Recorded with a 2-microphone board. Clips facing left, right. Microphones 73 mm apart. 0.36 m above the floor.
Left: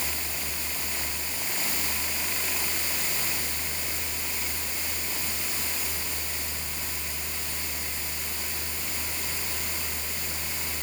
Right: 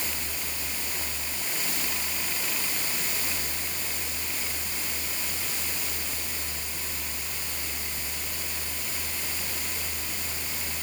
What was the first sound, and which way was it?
Only background noise.